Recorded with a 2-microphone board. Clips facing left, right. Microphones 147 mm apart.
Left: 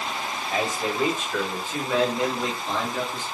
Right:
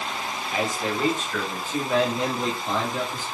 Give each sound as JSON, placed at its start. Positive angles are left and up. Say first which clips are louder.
{"t": 0.5, "sound": "a man speaking", "louder": "even", "side_deg": 30, "distance_m": 1.2}